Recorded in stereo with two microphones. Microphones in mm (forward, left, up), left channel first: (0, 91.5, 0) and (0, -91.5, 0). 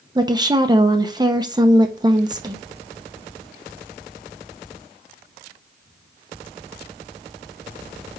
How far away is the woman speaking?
About 0.7 m.